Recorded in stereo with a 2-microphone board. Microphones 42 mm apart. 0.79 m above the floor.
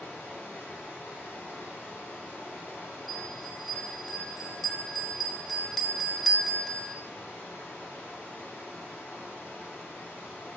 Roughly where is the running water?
Left.